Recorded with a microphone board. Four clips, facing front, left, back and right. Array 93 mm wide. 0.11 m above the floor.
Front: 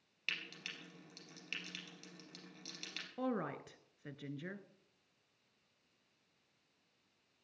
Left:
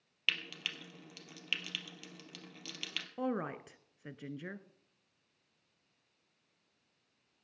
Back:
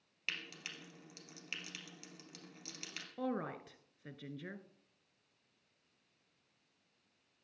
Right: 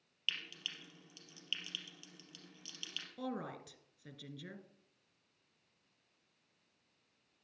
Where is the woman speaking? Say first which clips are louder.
Left 6 dB, even; 85° left, 1.2 m.